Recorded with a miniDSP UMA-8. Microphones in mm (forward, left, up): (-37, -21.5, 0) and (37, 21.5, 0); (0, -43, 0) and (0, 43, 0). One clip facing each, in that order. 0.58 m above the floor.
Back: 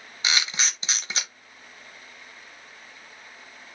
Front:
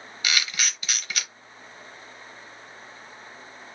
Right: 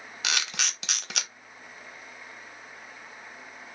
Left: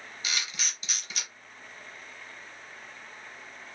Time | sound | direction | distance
0.2 | a camera shutter | 90° right | 0.6 m